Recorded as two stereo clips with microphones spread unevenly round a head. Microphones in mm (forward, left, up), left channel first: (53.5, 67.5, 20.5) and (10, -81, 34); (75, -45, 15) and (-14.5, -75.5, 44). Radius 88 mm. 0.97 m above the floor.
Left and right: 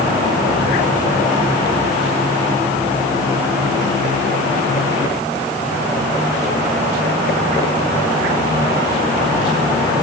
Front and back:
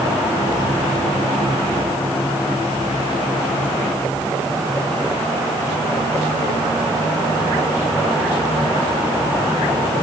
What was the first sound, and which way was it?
Only background noise.